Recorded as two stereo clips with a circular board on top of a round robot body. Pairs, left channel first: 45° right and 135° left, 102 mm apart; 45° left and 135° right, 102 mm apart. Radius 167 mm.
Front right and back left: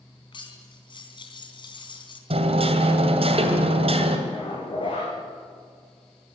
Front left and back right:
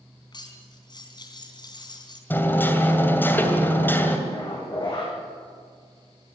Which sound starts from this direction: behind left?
Hammering, at 2.3 s.